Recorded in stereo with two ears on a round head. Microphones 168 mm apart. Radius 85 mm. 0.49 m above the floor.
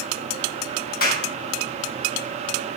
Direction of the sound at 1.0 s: 50° left (ahead or behind).